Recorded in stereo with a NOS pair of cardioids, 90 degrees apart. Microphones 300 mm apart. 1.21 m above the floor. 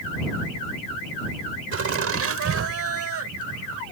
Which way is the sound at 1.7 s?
50° right.